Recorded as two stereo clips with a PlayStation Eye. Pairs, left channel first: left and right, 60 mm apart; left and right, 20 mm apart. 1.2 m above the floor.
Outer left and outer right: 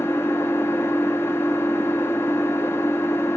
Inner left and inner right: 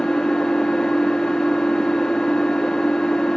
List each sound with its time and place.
0.0 s an engine running: 45° left (ahead or behind), 0.8 m